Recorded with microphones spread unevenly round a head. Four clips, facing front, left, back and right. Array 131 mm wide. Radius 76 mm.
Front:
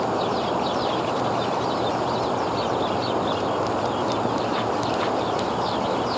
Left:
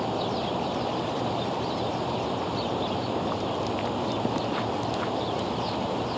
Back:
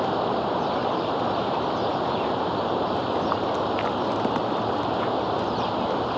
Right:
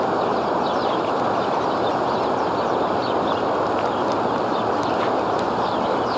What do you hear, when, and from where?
0.0 s running water: 85° right